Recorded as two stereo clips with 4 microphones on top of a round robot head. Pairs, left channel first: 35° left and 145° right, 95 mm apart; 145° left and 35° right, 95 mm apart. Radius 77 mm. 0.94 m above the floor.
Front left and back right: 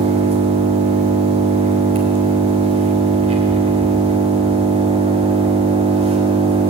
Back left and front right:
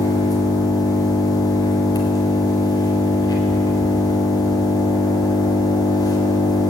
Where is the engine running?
165° right, 3.5 m.